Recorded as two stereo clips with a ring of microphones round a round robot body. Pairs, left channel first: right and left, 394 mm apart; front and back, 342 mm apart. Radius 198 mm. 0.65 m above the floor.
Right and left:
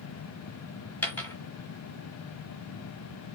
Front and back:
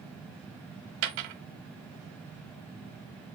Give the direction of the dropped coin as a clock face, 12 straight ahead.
6 o'clock.